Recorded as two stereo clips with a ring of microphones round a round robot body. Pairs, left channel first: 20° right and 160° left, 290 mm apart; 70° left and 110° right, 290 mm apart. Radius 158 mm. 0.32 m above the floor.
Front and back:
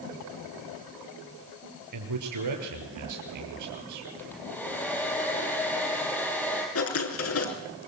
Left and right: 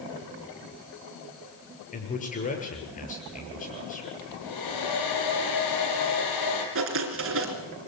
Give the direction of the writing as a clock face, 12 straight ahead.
2 o'clock.